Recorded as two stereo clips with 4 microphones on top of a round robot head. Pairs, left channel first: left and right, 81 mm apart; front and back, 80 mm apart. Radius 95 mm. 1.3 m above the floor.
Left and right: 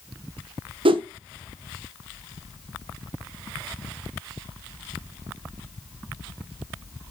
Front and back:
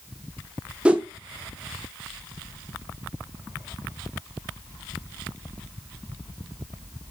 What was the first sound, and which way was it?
A whoosh, 100° right.